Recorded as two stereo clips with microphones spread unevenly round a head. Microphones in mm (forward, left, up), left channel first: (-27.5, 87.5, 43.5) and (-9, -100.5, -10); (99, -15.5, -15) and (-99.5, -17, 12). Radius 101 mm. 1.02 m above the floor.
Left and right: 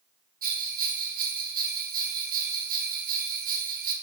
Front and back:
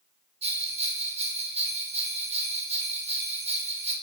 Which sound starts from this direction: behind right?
A bell, at 0.4 s.